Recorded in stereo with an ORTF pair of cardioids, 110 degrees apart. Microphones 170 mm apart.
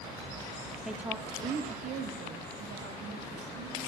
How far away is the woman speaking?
About 0.8 m.